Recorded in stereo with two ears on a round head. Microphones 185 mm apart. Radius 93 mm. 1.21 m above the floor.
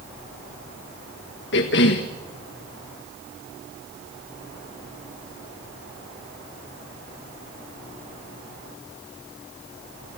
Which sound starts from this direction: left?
A cough, at 1.5 s.